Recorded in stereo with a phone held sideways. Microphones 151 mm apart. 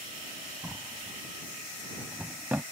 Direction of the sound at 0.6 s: 10° right (ahead or behind).